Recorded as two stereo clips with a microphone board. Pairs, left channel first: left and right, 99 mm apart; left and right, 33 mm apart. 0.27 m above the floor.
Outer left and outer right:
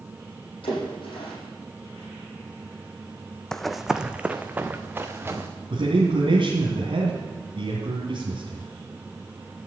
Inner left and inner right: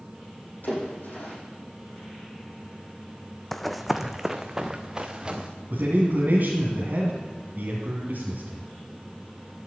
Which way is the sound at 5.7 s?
60° right (ahead or behind).